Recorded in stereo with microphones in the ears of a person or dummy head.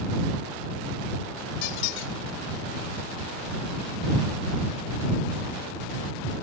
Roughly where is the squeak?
Left.